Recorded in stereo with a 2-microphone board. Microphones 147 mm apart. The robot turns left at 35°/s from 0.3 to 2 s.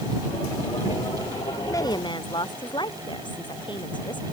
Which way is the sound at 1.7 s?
20° left (ahead or behind).